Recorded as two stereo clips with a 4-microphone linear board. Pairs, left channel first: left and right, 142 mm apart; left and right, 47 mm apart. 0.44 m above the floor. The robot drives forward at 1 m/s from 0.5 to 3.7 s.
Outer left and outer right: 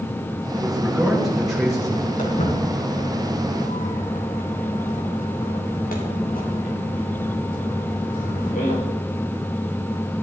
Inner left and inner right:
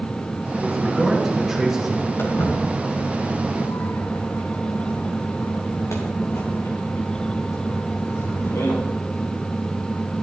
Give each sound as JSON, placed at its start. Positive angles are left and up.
{"t": 0.6, "sound": "a man speaking", "side_deg": 0, "distance_m": 8.0}
{"t": 2.2, "sound": "footsteps", "side_deg": 65, "distance_m": 5.5}